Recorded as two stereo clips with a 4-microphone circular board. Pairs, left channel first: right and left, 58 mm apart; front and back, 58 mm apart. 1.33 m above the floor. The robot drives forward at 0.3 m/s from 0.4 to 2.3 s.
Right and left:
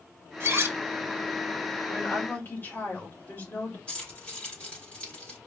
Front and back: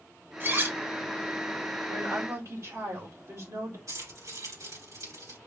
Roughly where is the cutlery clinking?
Behind left.